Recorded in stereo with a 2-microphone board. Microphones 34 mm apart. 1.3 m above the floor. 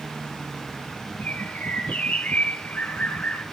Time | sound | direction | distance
1.2 | a bird | 50° left (ahead or behind) | 3.5 m